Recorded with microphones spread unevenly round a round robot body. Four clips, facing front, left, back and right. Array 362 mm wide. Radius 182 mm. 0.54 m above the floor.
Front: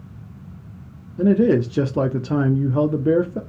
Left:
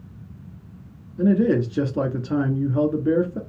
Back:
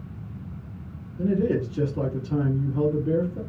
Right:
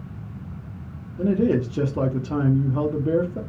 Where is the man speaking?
20° left, 0.9 m.